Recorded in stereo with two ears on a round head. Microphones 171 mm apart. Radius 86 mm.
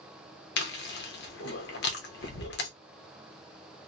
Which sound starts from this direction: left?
Chewing, at 0.6 s.